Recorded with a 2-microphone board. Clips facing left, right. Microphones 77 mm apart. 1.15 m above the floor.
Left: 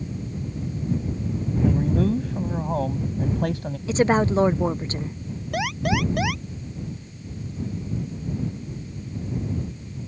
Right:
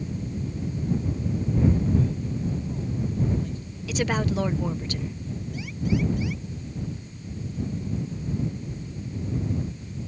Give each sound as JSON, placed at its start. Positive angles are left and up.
{"t": 1.6, "sound": "a man speaking", "side_deg": 70}
{"t": 3.9, "sound": "a woman speaking", "side_deg": 30}
{"t": 5.5, "sound": "an alarm", "side_deg": 80}